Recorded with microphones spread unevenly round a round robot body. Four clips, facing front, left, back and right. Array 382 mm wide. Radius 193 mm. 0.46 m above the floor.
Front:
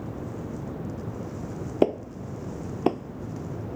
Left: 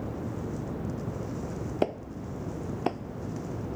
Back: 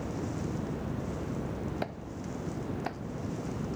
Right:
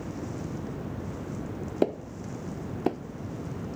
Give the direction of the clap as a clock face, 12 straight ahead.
1 o'clock.